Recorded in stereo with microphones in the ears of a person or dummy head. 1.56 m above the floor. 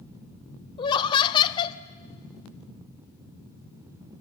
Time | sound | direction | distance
0.8 | laughter | 25° left (ahead or behind) | 0.6 m